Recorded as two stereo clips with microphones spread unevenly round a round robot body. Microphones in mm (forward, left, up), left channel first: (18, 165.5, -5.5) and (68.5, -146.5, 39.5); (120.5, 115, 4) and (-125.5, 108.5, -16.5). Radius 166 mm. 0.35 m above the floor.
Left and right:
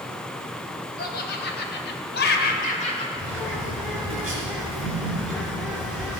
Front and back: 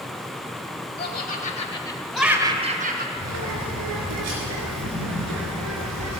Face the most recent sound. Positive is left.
turn(degrees=-170)